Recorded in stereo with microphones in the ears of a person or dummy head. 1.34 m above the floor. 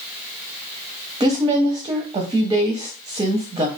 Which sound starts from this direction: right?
A woman speaking, at 1.2 s.